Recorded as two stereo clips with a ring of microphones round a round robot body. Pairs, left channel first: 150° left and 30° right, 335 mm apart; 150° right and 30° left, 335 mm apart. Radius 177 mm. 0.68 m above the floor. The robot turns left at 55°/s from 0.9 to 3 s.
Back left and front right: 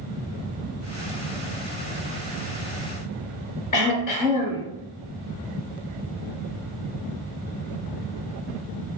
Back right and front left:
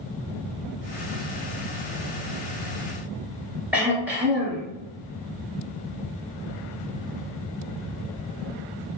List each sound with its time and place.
3.7 s throat clearing: 115° left, 1.8 m